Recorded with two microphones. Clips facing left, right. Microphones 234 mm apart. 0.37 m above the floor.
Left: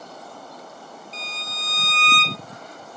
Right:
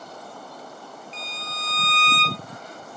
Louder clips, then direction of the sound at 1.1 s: Even; 40° left (ahead or behind).